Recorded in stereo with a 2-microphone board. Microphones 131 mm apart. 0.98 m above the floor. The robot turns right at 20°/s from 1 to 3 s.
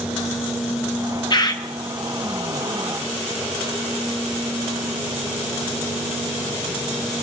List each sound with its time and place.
1.3 s a bird: 35° left (ahead or behind), 1.4 m; by 1.6 s 30° left (ahead or behind), 1.4 m